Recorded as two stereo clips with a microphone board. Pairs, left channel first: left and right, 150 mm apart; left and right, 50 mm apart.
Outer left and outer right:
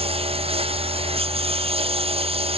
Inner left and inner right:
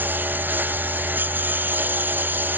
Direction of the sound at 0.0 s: 40° right (ahead or behind).